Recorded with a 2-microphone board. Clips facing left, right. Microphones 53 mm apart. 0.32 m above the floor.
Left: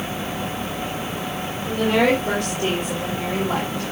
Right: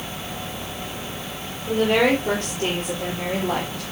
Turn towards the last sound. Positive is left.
turn(degrees=-50)  # may be behind; listen again after turning